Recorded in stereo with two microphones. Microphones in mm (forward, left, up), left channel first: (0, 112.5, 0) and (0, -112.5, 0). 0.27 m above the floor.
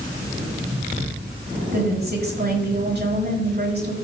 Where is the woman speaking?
50° right (ahead or behind), 2.5 m.